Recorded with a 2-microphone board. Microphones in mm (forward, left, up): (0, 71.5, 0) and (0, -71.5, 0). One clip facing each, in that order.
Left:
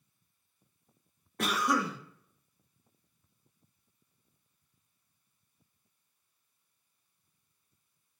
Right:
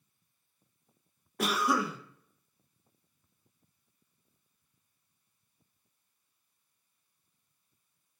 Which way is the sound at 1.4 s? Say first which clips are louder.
Right 1 dB; 5° right (ahead or behind).